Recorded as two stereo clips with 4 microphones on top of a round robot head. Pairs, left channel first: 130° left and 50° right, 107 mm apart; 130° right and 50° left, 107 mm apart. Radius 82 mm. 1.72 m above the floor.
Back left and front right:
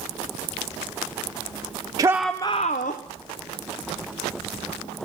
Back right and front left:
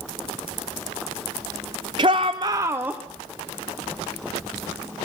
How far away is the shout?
About 0.6 m.